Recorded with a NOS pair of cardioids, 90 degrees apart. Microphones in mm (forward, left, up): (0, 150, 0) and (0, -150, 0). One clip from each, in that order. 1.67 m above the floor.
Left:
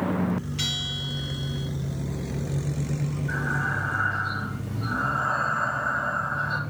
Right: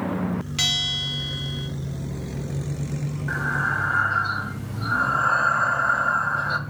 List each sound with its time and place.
0.6 s a bell: 65° right, 2 m
3.3 s breathing: 65° right, 2.0 m